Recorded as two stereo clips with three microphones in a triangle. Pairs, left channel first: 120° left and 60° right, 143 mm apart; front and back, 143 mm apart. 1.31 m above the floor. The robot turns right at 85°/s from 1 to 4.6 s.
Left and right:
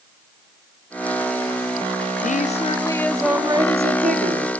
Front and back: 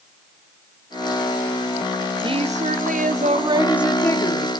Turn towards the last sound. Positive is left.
turn(degrees=-30)